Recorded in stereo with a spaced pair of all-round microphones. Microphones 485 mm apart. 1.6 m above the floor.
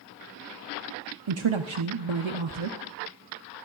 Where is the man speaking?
70° right (ahead or behind), 0.6 m.